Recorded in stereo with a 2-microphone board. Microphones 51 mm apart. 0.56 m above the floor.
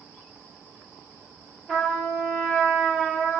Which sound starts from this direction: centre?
A trumpet, at 1.7 s.